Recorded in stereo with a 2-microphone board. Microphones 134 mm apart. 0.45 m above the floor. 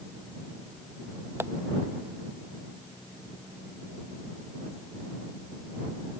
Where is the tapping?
15° right (ahead or behind).